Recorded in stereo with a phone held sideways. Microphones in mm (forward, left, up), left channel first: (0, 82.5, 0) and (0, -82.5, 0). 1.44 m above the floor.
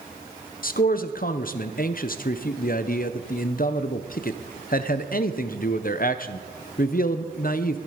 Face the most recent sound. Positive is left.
turn(degrees=65)  # may be behind; listen again after turning